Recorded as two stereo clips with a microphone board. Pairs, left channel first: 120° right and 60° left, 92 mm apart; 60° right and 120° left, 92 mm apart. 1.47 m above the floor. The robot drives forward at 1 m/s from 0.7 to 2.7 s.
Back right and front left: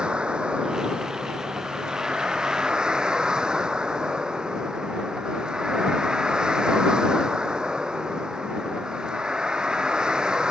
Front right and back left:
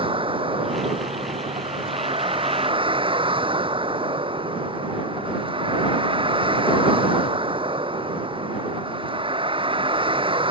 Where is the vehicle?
140° left.